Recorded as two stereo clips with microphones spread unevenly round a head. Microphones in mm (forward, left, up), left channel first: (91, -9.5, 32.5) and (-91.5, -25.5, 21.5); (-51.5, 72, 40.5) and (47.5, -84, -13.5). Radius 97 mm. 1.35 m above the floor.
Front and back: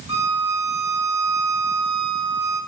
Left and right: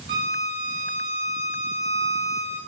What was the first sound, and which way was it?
A violin, 115° right.